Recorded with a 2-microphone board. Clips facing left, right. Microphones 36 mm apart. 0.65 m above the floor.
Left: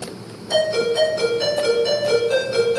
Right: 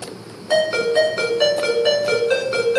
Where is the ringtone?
45° right (ahead or behind), 4.5 m.